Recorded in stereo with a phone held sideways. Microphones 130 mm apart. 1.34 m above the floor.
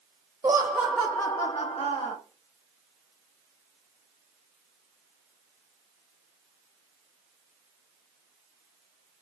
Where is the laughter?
25° right (ahead or behind), 0.7 m; by 2.1 s 60° left (ahead or behind), 0.8 m.